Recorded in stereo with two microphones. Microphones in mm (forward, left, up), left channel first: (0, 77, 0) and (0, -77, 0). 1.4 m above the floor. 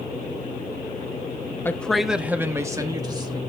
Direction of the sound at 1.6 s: 15° left (ahead or behind).